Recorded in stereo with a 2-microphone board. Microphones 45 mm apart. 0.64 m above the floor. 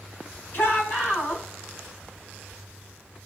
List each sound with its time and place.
0.5 s a shout: 50° left (ahead or behind), 5.5 m